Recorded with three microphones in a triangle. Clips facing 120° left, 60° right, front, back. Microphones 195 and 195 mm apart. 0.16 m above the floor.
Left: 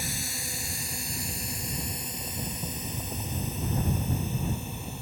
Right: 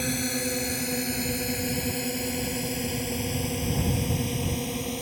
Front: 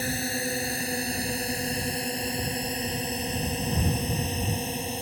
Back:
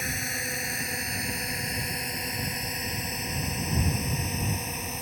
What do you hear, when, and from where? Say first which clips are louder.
0.0 s a drone: right 11 dB, front 6 dB; 55° right; by 5.0 s 60° right